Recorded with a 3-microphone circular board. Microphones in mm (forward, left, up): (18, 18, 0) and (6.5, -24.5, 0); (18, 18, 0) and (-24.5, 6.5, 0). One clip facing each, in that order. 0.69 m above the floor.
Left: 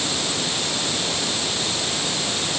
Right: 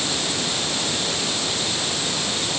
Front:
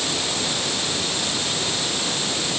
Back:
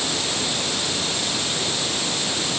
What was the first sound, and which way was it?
Only background noise.